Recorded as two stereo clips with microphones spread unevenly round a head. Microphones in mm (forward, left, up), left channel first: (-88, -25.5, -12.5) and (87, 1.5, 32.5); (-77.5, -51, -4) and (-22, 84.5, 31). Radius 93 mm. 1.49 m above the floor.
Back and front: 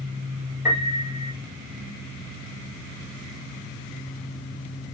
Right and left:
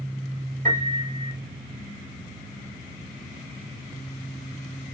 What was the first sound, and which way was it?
A piano, 85° left.